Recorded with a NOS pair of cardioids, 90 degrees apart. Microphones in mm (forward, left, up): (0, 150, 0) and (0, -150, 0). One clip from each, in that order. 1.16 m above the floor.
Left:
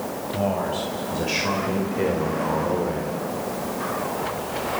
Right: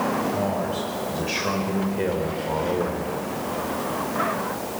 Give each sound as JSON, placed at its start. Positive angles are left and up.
{"t": 0.3, "sound": "a man speaking", "azimuth_deg": 15, "distance_m": 5.5}